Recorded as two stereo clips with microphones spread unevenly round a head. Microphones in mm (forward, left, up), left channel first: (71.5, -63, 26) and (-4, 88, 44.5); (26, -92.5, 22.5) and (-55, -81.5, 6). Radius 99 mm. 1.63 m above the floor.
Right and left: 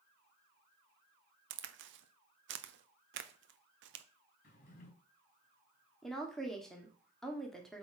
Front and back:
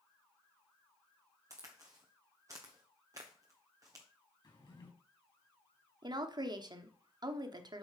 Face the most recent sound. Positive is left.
turn(degrees=-150)